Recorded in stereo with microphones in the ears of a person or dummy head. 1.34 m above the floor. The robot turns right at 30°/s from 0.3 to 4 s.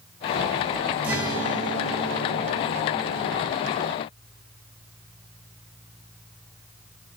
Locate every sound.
1.0 s a guitar: 170° right, 1.7 m; by 3.4 s 100° right, 1.7 m